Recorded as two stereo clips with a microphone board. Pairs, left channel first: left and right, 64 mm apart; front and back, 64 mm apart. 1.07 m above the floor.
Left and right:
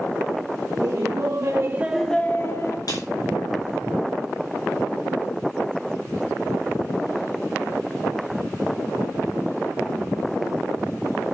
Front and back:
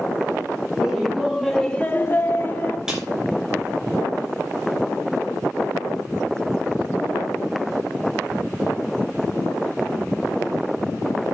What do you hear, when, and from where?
0.7 s laughter: 95° right, 1.9 m; by 2.8 s 55° left, 1.4 m
2.9 s a snare drum: 100° left, 6 m